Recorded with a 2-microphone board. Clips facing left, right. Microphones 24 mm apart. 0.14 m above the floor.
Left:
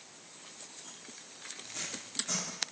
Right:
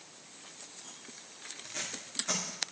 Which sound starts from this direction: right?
Tape being pulled, at 1.6 s.